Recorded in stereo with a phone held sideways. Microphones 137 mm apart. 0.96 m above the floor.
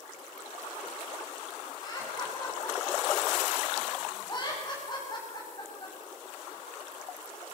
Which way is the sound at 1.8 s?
30° left (ahead or behind).